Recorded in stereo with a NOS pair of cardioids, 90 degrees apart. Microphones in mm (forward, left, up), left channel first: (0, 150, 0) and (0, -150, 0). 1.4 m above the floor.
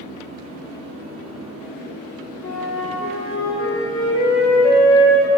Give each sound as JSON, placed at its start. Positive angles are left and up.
{"t": 2.4, "sound": "a flute", "azimuth_deg": 45, "distance_m": 2.0}